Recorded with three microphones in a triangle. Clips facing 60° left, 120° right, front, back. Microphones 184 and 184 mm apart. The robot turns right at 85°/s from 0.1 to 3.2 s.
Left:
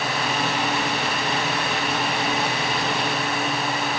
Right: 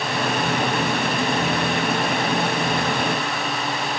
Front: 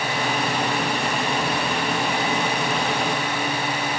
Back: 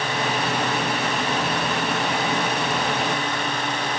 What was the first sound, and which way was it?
Only background noise.